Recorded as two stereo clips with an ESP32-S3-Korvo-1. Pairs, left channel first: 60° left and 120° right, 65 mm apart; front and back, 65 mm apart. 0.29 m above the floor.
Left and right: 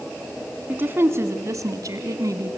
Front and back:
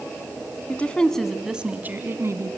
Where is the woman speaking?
60° right, 2 m; by 2.6 s 150° right, 2.5 m.